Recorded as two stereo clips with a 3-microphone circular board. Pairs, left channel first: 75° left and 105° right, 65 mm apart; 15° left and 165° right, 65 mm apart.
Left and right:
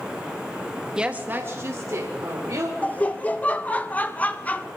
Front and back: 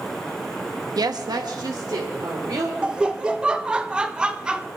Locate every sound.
1.0 s a woman speaking: 175° left, 0.8 m; by 2.7 s 140° right, 2.5 m
2.8 s laughter: 130° left, 0.8 m